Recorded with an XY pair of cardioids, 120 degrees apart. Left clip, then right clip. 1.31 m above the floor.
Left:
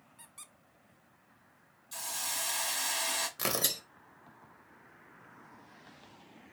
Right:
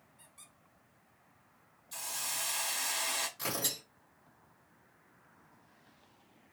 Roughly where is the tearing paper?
Ahead left.